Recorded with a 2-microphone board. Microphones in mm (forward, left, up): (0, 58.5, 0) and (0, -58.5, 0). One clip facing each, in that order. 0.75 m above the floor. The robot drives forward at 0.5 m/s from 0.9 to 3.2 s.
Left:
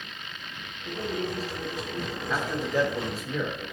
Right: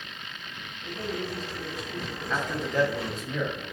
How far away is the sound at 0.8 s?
About 1.6 m.